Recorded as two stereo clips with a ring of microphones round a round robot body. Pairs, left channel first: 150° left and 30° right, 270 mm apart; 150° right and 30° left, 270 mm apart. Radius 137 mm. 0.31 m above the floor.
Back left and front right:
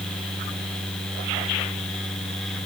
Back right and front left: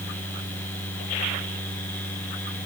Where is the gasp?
No gasp in this recording.